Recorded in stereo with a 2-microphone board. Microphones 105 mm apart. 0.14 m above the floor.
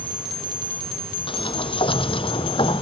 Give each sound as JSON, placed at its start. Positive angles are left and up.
{"t": 1.3, "sound": "a sliding door", "side_deg": 55}